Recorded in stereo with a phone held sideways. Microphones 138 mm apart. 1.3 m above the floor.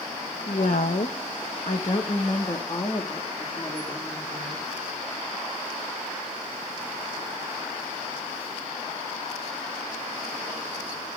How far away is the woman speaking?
About 1.0 m.